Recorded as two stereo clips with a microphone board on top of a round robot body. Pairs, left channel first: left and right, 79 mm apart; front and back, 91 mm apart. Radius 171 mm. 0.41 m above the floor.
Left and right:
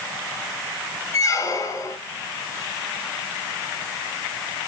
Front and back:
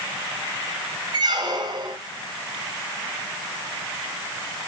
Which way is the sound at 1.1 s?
140° left.